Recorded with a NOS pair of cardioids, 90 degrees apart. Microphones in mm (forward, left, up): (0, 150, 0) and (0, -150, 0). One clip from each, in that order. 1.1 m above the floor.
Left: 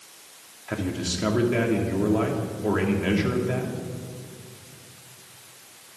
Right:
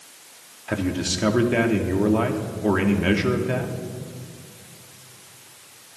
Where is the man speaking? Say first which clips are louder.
Right 4 dB; 25° right, 2.5 m.